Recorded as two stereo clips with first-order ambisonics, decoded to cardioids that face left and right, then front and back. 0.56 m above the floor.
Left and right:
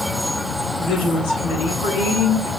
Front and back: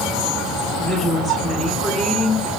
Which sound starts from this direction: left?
A woman speaking, at 0.8 s.